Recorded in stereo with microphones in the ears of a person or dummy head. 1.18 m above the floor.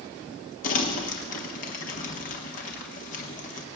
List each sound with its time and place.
0.6 s crumpling: 45° left (ahead or behind), 1.2 m